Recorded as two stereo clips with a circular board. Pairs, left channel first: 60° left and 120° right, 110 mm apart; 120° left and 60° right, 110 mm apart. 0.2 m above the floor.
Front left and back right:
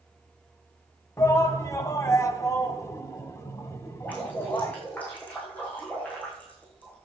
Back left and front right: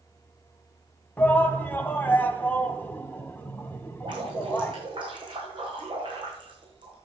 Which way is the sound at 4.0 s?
15° right.